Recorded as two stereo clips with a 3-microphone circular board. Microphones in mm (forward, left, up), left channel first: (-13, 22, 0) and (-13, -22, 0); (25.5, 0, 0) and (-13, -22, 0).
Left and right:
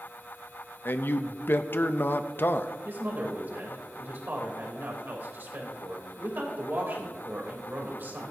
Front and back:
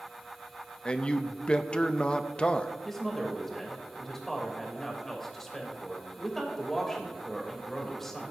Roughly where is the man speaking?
Left.